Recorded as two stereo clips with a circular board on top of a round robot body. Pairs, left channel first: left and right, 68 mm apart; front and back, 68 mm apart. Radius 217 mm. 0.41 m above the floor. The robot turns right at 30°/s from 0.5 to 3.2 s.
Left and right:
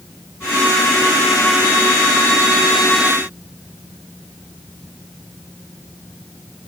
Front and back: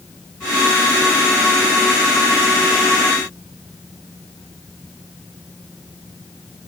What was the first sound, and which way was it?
Only background noise.